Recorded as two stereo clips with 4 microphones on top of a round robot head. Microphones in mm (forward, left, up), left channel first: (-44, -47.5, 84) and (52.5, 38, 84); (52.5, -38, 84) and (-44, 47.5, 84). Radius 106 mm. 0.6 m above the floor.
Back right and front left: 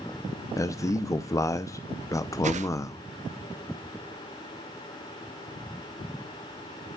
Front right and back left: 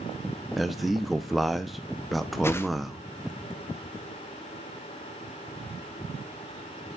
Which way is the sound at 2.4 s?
30° left.